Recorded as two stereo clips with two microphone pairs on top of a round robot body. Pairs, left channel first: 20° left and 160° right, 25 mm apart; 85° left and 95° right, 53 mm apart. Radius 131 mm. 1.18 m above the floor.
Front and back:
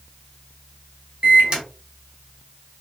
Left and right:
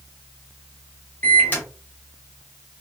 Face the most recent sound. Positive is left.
turn(degrees=145)